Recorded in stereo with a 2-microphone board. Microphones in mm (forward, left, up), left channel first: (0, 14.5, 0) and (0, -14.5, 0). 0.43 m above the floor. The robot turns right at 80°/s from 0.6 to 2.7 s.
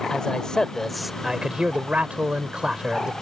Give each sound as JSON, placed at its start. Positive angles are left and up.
{"t": 0.1, "sound": "a man speaking", "azimuth_deg": 145}